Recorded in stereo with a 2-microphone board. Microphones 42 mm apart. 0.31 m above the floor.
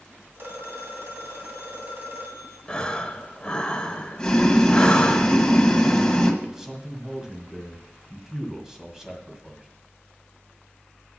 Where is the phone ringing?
55° right (ahead or behind), 1.9 m.